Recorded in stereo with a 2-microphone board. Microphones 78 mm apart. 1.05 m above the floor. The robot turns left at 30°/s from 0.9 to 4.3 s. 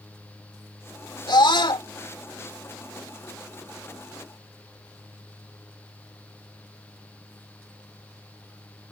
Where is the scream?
80° left.